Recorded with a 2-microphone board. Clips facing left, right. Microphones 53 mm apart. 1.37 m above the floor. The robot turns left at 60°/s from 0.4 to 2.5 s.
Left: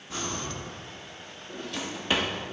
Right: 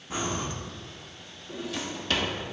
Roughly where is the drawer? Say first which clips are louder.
Right 1 dB; behind.